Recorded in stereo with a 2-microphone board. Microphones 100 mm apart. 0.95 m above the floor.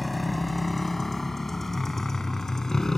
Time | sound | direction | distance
0.0 | a motorcycle | centre (ahead or behind) | ?